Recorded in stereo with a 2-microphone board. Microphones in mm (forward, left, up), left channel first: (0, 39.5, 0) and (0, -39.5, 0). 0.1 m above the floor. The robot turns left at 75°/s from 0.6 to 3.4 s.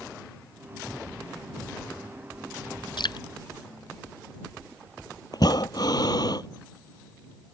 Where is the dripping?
70° left (ahead or behind).